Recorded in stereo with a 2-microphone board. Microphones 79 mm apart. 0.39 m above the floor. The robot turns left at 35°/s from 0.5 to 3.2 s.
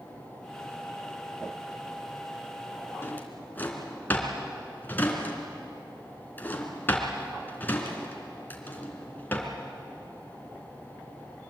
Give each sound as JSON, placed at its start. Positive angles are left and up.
{"t": 3.0, "sound": "a drawer", "side_deg": 30, "distance_m": 3.0}